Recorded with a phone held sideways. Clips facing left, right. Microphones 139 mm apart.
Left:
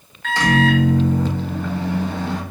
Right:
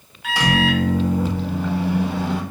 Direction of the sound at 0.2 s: 10° right (ahead or behind).